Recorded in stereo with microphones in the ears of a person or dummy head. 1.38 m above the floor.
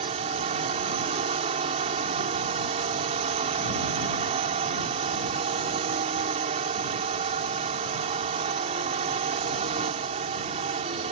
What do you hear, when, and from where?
0.0 s a drone: 30° right (ahead or behind)